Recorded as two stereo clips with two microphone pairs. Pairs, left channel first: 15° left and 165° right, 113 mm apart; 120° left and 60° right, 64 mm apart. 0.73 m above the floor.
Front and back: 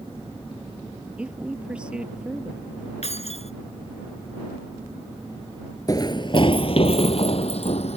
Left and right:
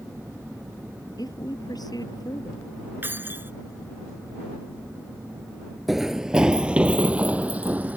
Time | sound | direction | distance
1.2 | a woman speaking | 115° left | ?
3.0 | keys jangling | straight ahead | ?
5.9 | running footsteps | 30° left | ?